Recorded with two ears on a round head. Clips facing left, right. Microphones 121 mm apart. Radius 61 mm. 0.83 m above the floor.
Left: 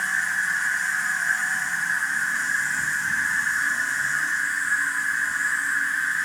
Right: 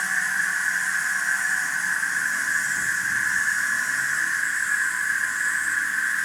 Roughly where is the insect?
Right.